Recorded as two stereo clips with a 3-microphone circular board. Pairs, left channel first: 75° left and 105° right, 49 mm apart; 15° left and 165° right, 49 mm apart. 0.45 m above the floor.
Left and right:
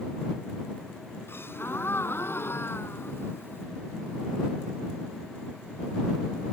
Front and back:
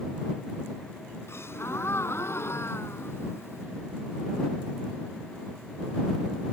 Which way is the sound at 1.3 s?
40° left.